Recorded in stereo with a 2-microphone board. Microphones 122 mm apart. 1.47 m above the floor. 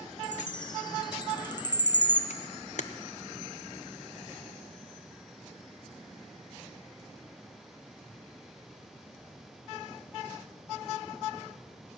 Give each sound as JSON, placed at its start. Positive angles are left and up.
{"t": 0.2, "sound": "a chime", "side_deg": 35, "distance_m": 0.6}
{"t": 2.3, "sound": "a camera shutter", "side_deg": 65, "distance_m": 0.6}